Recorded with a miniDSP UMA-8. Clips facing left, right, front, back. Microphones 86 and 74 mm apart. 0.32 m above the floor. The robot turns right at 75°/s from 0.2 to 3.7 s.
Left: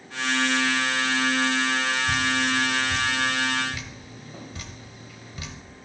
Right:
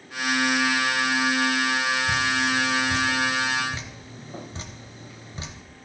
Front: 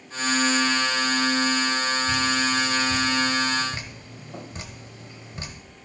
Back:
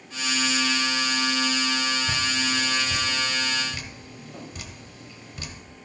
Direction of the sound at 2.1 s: 165° right.